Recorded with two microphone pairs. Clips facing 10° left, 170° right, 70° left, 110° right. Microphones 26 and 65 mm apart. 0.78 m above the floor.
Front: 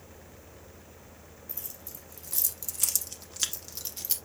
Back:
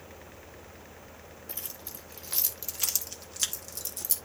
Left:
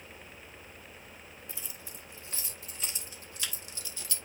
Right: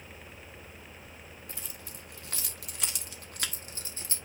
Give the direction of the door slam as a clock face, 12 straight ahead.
No door slam in this recording.